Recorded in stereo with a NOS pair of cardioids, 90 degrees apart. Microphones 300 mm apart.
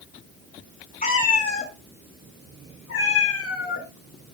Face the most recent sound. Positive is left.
turn(degrees=55)